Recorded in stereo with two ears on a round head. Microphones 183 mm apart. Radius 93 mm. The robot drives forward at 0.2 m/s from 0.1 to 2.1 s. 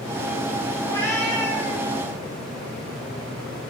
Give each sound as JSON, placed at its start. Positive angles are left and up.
{"t": 0.8, "sound": "a cat meowing", "side_deg": 15, "distance_m": 1.4}